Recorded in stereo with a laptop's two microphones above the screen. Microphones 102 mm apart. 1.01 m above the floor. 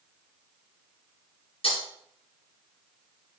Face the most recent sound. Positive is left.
turn(degrees=70)  # may be behind; listen again after turning